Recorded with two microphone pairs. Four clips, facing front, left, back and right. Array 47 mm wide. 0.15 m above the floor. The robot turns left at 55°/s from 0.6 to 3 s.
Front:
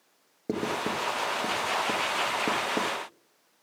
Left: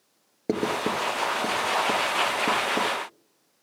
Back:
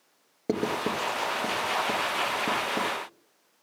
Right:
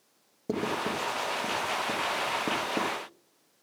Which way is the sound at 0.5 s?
120° left.